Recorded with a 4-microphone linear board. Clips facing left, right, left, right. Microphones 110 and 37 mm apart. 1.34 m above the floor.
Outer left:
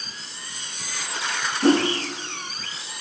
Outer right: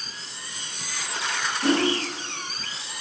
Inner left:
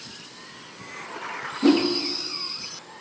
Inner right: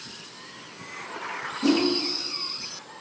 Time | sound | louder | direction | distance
1.6 | a whoosh | outer left 4 dB, inner left 3 dB | 35° left (ahead or behind) | 0.9 m